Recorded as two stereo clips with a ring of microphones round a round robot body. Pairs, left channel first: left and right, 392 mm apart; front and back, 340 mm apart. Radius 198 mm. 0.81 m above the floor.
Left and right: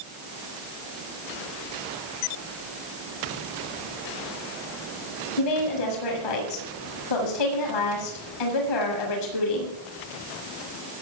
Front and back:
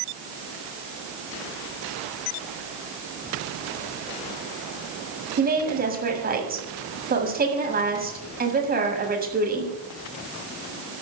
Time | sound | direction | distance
5.4 | a woman speaking | 115° left | 8 m